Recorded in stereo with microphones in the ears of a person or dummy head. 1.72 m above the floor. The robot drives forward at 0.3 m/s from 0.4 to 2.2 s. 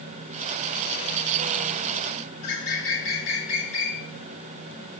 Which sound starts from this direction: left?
A bird, at 2.4 s.